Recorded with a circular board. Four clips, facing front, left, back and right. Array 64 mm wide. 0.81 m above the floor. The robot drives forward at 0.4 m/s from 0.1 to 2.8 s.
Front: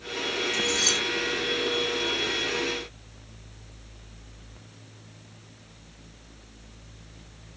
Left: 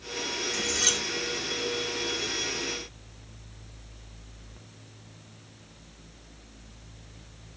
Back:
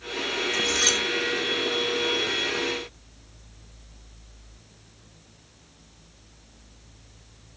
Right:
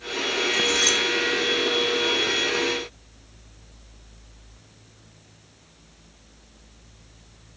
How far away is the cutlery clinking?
About 7.5 m.